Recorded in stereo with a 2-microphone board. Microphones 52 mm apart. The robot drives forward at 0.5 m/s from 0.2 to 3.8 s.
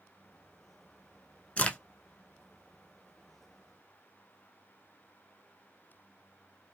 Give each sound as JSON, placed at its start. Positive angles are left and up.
{"t": 1.6, "sound": "a crack", "side_deg": 30, "distance_m": 0.5}